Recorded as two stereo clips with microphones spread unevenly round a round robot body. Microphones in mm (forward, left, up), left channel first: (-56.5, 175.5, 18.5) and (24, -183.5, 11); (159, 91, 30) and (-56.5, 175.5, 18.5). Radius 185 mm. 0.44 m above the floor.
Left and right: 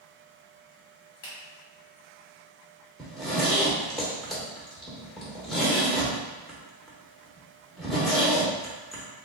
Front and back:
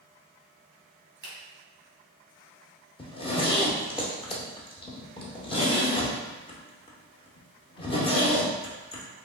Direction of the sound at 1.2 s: 160° left.